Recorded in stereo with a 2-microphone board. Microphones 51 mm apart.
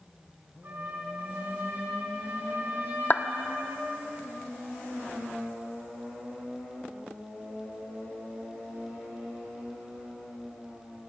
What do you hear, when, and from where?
0.6 s a trumpet: 50° right (ahead or behind), 5.5 m
3.1 s a clap: 40° left (ahead or behind), 1.1 m